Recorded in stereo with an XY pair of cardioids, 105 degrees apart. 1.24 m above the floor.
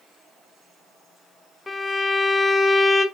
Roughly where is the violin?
Ahead left.